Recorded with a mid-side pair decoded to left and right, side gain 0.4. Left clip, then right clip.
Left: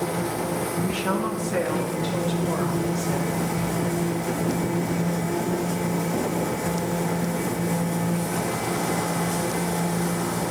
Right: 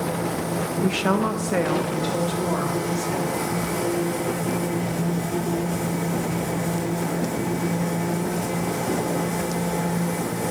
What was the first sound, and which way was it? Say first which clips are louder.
A woman speaking: right 3 dB; 65° right.